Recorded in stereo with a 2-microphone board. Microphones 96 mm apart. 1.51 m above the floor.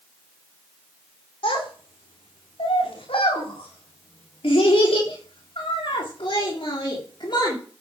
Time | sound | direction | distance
1.4 | a child speaking | 75° left (ahead or behind) | 4 m